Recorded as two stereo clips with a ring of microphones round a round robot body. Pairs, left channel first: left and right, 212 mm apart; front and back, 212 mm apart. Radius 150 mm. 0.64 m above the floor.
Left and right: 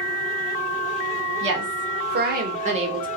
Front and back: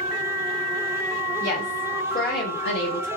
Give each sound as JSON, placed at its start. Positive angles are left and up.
{"t": 1.4, "sound": "a woman speaking", "azimuth_deg": -65, "distance_m": 1.4}